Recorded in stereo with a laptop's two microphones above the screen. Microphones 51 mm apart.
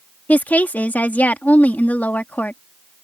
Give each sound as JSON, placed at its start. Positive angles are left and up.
{"t": 0.3, "sound": "a woman speaking", "side_deg": 30}